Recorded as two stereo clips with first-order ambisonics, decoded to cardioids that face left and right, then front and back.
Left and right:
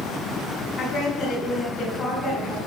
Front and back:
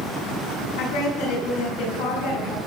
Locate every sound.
0.8 s a woman speaking: 20° left, 7 m